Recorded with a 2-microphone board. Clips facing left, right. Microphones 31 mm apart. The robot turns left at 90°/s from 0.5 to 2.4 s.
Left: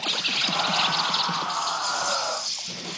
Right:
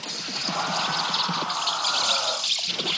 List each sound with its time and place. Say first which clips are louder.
0.0 s an insect: left 6 dB; 65° left, 0.9 m; by 3.0 s 105° right, 0.9 m